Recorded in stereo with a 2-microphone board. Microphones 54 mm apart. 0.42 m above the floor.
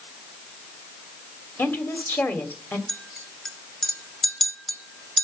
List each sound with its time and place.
1.6 s a woman speaking: 40° left (ahead or behind), 2.0 m
2.9 s a clink: 5° left (ahead or behind), 1.5 m